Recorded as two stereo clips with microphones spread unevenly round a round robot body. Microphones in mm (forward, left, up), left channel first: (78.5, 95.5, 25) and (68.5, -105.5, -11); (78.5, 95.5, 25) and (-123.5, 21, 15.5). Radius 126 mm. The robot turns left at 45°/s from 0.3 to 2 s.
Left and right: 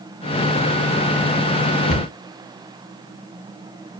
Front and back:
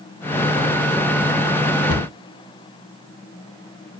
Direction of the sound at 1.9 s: 40° left.